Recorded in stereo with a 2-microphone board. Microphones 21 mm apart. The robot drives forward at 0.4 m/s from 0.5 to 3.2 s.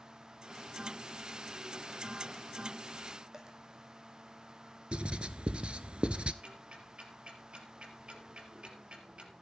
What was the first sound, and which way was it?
A dropped coin, 30° right (ahead or behind).